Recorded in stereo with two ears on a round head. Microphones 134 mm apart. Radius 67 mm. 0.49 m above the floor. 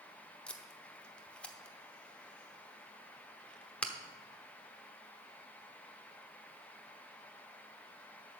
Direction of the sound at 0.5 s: 5° left (ahead or behind).